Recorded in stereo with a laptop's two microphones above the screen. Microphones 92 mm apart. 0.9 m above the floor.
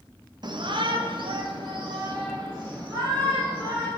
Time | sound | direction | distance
0.4 | a shout | 50° right (ahead or behind) | 1.2 m